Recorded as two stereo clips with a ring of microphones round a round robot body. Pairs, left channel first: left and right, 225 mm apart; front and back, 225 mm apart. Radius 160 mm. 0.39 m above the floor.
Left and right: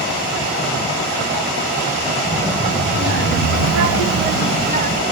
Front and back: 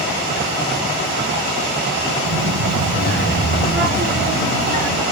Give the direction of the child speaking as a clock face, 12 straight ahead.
5 o'clock.